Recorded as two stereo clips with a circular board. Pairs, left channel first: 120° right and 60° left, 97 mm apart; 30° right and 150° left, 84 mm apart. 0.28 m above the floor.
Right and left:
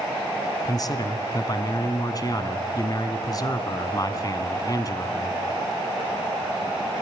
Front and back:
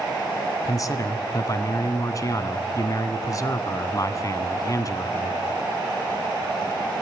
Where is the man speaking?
75° right, 2.0 m.